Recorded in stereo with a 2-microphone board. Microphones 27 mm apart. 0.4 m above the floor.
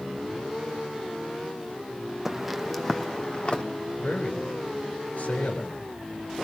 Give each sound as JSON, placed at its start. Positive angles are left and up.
{"t": 2.2, "sound": "footsteps", "side_deg": -10, "distance_m": 1.5}
{"t": 4.0, "sound": "a man speaking", "side_deg": 75, "distance_m": 6.0}